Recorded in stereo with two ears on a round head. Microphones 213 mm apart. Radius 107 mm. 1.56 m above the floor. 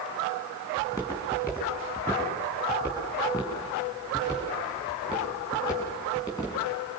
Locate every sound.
0.8 s footsteps: 15° left (ahead or behind), 5 m